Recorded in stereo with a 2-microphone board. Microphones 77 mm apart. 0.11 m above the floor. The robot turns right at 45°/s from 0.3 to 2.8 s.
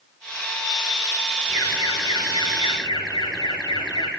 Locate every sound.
1.5 s an alarm: 25° left, 7 m; by 4.1 s 85° left, 7 m